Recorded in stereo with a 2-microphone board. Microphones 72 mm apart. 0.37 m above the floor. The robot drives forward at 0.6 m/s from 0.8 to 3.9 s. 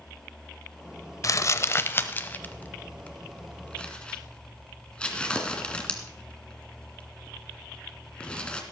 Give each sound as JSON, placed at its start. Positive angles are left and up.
{"t": 1.2, "sound": "crumpling", "side_deg": 50, "distance_m": 0.6}